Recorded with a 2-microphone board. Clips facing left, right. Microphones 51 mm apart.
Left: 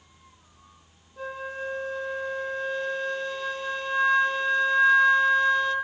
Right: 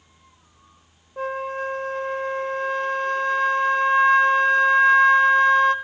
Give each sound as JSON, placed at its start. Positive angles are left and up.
{"t": 1.2, "sound": "a flute", "side_deg": -55, "distance_m": 1.0}